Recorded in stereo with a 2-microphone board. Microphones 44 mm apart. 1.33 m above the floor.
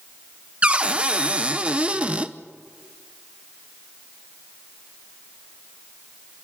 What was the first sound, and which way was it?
A cupboard door, 30° right (ahead or behind).